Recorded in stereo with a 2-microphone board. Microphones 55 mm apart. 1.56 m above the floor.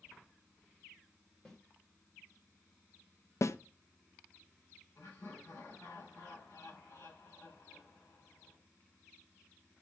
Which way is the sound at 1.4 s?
10° left (ahead or behind).